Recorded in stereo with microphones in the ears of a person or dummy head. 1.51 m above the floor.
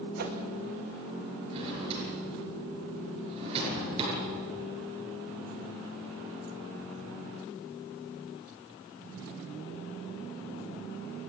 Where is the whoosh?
55° right (ahead or behind), 2.5 m.